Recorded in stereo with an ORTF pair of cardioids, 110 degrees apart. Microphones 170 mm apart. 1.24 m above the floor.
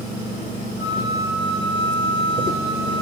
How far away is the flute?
About 0.7 m.